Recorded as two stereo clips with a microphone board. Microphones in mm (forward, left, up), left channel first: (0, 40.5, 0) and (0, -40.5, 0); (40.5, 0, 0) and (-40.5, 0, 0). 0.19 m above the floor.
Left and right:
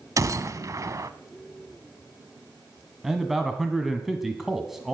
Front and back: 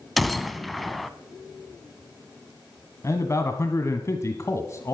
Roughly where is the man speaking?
Ahead.